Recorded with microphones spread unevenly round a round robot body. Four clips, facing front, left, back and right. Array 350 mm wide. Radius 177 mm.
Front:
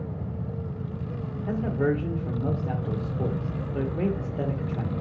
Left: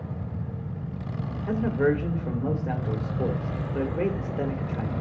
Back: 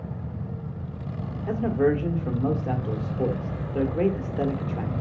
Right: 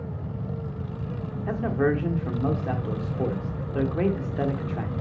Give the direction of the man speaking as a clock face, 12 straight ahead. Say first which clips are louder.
Left 1 dB, back 3 dB; 4 o'clock.